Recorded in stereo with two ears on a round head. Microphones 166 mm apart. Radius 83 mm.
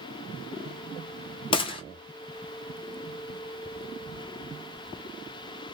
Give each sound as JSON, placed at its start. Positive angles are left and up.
{"t": 1.5, "sound": "a gunshot", "side_deg": 25, "distance_m": 0.6}